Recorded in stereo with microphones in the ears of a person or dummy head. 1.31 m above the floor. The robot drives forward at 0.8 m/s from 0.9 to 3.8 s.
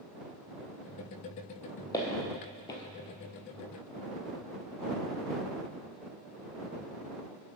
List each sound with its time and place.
1.9 s footsteps: 15° left (ahead or behind), 1.8 m; by 2.8 s 20° left (ahead or behind), 1.4 m